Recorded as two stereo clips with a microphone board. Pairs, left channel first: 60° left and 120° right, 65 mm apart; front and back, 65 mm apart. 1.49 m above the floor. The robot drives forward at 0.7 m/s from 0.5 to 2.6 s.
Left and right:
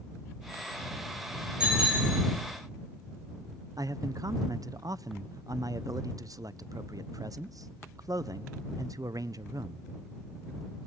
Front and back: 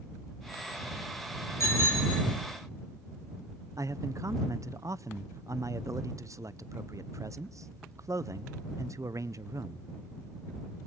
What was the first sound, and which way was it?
A bicycle bell, 45° right.